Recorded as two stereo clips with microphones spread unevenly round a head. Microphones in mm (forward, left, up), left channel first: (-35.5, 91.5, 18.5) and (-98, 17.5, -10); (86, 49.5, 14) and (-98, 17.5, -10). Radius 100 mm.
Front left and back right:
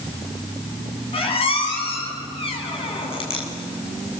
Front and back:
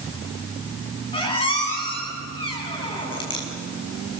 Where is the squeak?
75° left, 7 m.